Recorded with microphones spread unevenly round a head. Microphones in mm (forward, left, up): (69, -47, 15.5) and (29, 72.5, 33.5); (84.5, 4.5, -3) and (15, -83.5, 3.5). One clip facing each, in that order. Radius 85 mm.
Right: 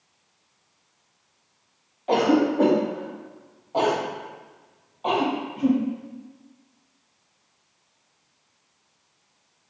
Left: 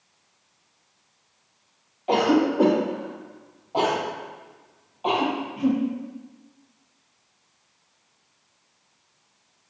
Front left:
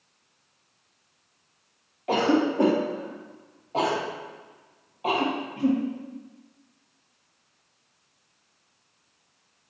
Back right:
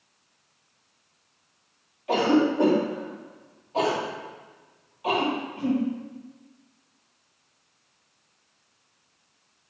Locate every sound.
2.1 s a cough: 20° left, 1.6 m